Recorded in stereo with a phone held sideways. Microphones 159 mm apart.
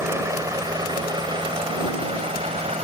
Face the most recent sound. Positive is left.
turn(degrees=-40)  # may be behind; listen again after turning